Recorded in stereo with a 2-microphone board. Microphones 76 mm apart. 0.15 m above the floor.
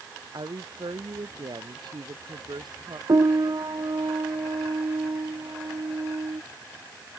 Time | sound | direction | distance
0.3 | a woman speaking | 70° right (ahead or behind) | ?
3.1 | a piano | 55° right (ahead or behind) | ?